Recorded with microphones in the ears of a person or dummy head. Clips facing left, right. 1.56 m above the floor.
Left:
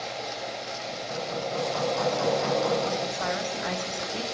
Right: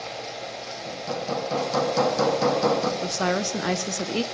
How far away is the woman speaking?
About 0.8 m.